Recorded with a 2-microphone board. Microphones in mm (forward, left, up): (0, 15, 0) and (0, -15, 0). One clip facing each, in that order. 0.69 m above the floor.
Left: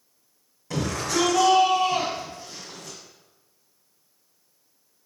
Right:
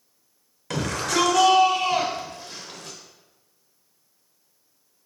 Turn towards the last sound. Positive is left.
turn(degrees=-55)  # may be behind; listen again after turning